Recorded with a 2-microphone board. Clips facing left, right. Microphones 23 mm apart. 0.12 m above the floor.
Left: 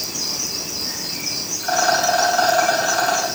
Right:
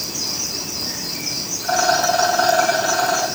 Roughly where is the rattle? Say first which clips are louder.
Even; left.